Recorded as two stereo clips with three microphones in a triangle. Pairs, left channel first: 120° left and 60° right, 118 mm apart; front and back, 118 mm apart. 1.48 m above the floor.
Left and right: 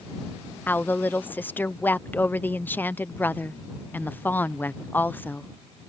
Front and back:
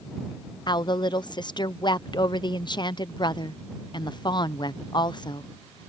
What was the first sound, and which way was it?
A woman speaking, 45° left.